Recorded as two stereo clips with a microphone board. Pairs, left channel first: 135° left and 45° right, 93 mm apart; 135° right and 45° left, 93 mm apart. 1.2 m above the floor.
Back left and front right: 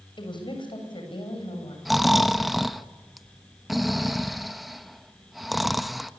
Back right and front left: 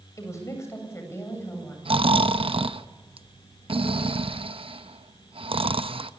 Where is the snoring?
45° left, 0.9 m.